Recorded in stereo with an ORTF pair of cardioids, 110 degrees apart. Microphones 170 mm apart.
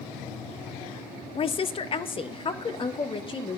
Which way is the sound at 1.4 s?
35° left.